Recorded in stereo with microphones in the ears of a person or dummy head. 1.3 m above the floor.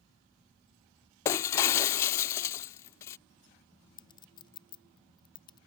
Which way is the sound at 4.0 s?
20° left (ahead or behind).